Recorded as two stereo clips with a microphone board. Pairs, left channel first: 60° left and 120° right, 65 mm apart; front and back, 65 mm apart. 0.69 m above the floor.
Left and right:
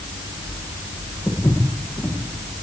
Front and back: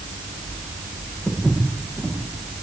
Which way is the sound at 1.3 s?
95° left.